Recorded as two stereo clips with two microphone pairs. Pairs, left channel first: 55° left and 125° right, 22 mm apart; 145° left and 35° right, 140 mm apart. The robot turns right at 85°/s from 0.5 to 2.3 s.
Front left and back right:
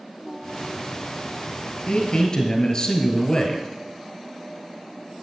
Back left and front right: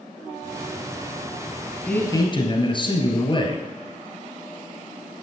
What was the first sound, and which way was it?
A man speaking, 65° left.